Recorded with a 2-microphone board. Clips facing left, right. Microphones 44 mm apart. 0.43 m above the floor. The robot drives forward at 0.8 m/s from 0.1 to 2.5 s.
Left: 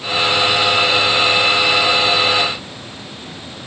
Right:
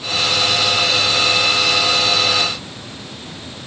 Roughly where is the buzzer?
No buzzer in this recording.